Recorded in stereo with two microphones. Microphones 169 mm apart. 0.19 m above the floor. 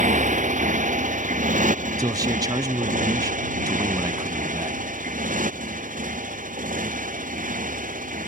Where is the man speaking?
20° right (ahead or behind).